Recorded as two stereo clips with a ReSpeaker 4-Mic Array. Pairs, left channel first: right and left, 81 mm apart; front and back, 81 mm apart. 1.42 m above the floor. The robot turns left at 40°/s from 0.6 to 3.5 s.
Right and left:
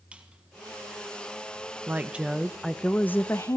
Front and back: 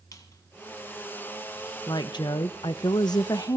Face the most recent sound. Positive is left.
turn(degrees=-40)